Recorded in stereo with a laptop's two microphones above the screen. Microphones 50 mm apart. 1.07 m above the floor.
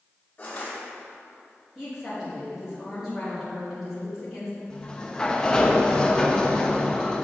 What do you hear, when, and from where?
0.4 s crushing: 25° left (ahead or behind), 1.7 m
1.8 s a woman speaking: 10° right (ahead or behind), 1.7 m
4.7 s a sliding door: 15° left (ahead or behind), 0.6 m